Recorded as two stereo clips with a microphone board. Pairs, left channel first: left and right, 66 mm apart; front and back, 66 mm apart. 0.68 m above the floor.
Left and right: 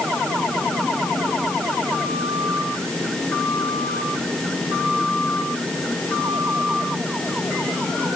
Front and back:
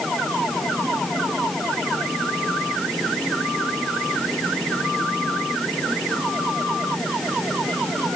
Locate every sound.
Only background noise.